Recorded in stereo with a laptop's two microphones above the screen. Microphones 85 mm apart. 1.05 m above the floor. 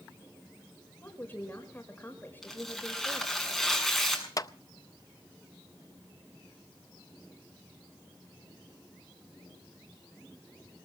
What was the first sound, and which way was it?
A woman speaking, 20° left (ahead or behind).